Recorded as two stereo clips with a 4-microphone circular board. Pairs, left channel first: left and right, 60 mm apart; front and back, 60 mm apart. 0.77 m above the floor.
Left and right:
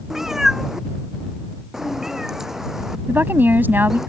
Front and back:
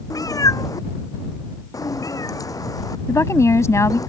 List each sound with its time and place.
0.1 s a cat meowing: 10° right
3.1 s a woman speaking: 35° right